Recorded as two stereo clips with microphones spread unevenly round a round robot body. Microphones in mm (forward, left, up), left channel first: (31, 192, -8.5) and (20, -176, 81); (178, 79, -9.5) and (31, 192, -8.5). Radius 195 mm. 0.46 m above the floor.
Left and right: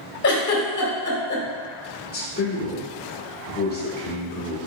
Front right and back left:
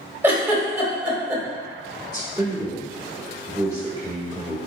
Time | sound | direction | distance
0.2 | a giggle | 65° left | 1.4 m
2.0 | a man speaking | 80° left | 1.2 m